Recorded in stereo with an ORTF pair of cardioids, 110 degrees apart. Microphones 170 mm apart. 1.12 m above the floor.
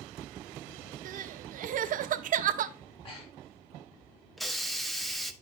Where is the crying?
55° right, 0.7 m.